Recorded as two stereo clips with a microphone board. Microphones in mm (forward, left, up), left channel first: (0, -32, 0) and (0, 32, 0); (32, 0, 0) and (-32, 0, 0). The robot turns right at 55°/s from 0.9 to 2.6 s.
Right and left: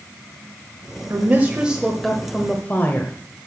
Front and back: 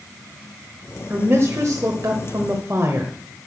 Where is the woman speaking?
130° left, 1.2 m; by 3.1 s 145° right, 1.2 m.